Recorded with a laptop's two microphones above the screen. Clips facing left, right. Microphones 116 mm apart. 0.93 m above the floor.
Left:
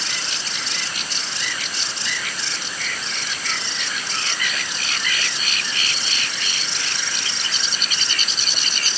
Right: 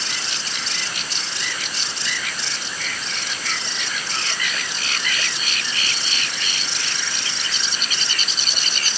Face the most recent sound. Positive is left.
No sound to turn to.